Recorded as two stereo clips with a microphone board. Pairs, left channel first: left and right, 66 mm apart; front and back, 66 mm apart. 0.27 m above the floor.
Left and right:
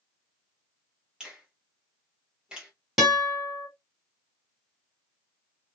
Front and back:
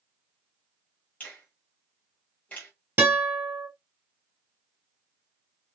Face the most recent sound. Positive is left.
turn(degrees=-170)